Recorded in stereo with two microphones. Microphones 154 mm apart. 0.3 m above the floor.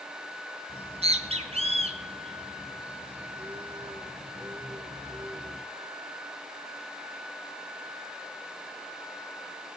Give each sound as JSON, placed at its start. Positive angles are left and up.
{"t": 0.7, "sound": "a bird", "side_deg": -40, "distance_m": 2.5}